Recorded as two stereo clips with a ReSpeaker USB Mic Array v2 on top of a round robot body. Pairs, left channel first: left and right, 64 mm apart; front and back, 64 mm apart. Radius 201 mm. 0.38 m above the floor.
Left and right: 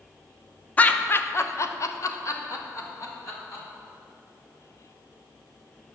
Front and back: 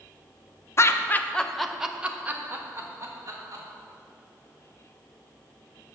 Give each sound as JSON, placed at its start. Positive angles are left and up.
{"t": 0.8, "sound": "laughter", "azimuth_deg": 30, "distance_m": 1.1}